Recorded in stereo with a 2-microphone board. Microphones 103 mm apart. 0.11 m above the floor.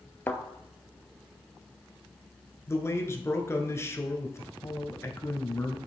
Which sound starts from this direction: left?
A man speaking, at 2.7 s.